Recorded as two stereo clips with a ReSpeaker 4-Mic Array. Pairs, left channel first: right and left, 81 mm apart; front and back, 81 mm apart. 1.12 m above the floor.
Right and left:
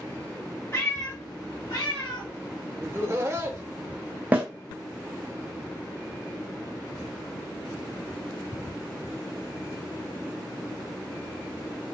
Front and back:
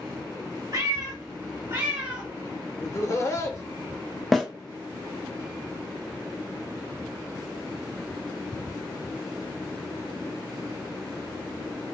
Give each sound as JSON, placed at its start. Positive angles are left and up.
{"t": 0.7, "sound": "a cat meowing", "azimuth_deg": -145, "distance_m": 1.5}
{"t": 2.8, "sound": "laughter", "azimuth_deg": 45, "distance_m": 0.7}
{"t": 4.3, "sound": "a snare drum", "azimuth_deg": 85, "distance_m": 0.7}